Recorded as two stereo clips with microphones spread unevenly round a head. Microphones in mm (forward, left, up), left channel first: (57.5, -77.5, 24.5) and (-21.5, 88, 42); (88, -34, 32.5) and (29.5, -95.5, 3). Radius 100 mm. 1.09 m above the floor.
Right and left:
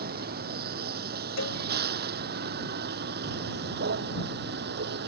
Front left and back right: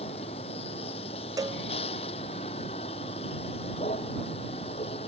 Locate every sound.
0.0 s a vehicle: 80° left; by 5.1 s 85° left
1.4 s a cowbell: 85° right